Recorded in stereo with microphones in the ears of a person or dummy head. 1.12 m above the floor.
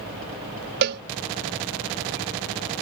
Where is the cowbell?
60° right (ahead or behind).